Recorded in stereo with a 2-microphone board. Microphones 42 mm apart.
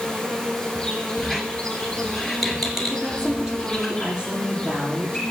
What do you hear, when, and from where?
0.0 s an insect: 15° left (ahead or behind), 4.5 m
1.2 s a squeak: centre (ahead or behind), 1.8 m
2.9 s a woman speaking: 20° right (ahead or behind), 6 m